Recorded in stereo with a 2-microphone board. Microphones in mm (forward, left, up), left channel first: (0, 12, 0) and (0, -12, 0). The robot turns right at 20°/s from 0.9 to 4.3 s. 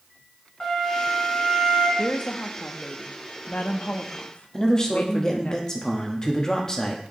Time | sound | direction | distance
0.6 | a flute | 25° left (ahead or behind) | 3 m
2.0 | a woman speaking | 60° left | 0.9 m
4.5 | a man speaking | 25° left (ahead or behind) | 1.3 m